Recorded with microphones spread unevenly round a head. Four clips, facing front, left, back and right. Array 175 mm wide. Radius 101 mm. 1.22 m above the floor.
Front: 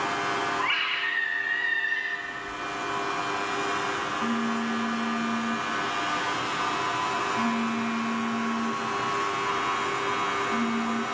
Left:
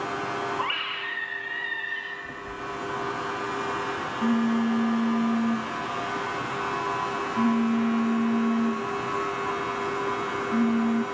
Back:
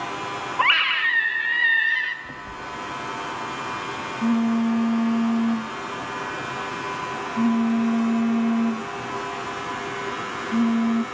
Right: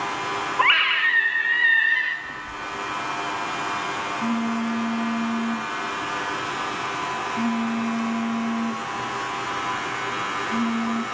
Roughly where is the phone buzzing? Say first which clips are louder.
Right 2 dB, even; behind.